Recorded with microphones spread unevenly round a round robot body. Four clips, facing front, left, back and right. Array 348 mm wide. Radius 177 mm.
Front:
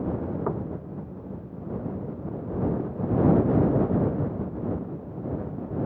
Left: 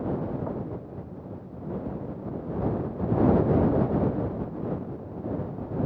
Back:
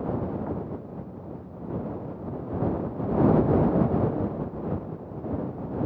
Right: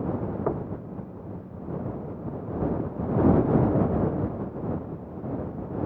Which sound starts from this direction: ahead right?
Knocking, at 0.5 s.